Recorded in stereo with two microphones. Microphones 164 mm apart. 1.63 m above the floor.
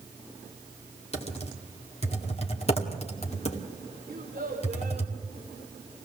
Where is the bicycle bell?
No bicycle bell in this recording.